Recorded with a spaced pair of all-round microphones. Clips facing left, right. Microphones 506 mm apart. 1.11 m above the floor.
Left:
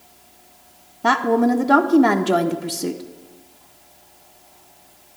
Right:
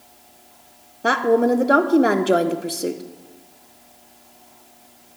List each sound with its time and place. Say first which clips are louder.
1.0 s a woman speaking: right 1 dB; 20° left (ahead or behind), 0.5 m